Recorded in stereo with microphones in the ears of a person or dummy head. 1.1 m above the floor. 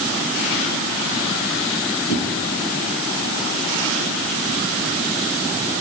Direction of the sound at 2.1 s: 70° left (ahead or behind).